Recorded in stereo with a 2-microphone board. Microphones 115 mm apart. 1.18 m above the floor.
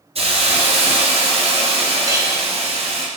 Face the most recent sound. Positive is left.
turn(degrees=-30)  # may be behind; listen again after turning